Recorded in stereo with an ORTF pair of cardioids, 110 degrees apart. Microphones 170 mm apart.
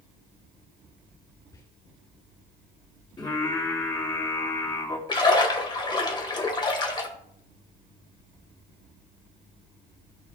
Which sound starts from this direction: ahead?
Whispering, at 1.5 s.